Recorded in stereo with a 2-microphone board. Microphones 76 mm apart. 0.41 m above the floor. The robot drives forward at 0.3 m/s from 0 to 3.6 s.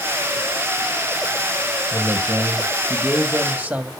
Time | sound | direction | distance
1.9 | a man speaking | 25° right (ahead or behind) | 2.5 m